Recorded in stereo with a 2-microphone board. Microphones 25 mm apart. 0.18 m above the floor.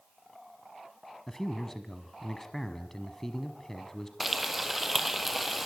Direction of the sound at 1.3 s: 15° left (ahead or behind).